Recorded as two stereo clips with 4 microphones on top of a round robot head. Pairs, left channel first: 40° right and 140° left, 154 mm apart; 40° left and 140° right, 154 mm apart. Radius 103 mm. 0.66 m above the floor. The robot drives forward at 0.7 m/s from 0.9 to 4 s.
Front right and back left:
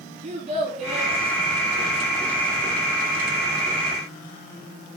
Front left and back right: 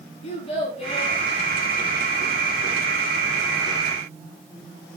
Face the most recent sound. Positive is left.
turn(degrees=115)